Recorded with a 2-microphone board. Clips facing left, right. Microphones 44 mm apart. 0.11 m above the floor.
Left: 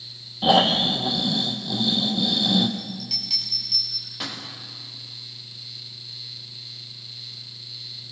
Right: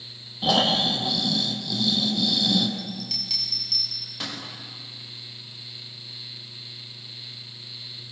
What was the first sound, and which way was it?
Snoring, 20° left (ahead or behind).